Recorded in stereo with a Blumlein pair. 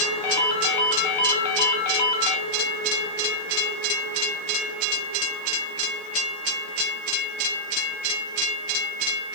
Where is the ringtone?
50° left, 1.5 m.